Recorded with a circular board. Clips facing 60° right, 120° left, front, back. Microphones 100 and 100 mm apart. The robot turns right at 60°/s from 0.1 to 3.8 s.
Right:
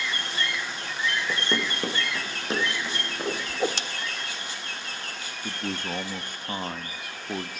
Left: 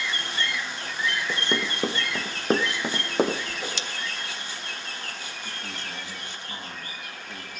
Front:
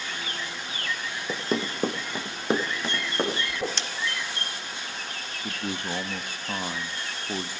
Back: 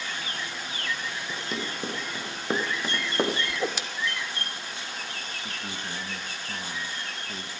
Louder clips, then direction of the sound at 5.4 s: Right 10 dB, front 8 dB; 20° right.